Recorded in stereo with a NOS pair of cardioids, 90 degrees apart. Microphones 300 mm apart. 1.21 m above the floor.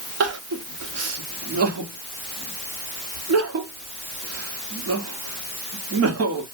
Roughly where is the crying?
Ahead right.